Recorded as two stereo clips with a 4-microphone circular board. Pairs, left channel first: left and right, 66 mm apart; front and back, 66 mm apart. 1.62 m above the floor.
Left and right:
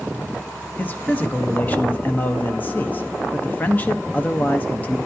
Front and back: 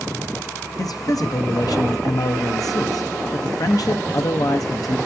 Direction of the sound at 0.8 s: 25° left.